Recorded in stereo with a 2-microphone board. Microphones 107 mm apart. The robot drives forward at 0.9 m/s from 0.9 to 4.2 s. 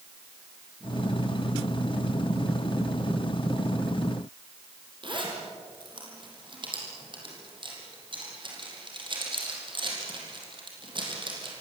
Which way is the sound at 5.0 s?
50° right (ahead or behind).